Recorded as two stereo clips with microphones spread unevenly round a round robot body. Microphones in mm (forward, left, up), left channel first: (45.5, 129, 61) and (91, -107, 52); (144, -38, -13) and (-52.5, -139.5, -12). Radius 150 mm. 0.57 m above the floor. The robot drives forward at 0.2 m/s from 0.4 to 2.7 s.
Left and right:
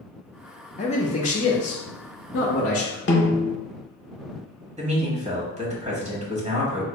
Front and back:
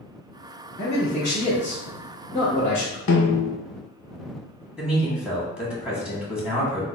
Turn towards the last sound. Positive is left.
turn(degrees=-70)